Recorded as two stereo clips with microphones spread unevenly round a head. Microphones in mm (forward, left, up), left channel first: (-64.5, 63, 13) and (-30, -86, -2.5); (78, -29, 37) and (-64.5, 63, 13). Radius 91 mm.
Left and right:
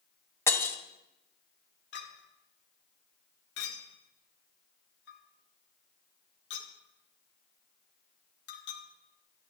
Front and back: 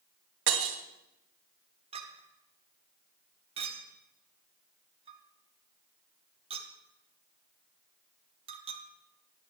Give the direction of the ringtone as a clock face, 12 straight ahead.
I don't hear a ringtone.